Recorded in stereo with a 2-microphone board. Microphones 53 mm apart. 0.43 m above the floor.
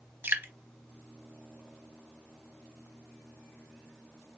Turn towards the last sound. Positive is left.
turn(degrees=-40)  # may be behind; listen again after turning